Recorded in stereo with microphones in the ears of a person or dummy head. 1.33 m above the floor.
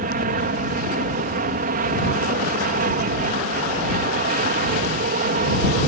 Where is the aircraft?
45° right (ahead or behind).